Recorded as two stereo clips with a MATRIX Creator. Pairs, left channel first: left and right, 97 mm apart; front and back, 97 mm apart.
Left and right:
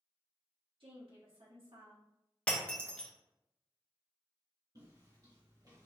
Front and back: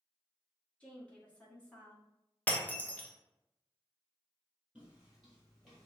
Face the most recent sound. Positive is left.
turn(degrees=-80)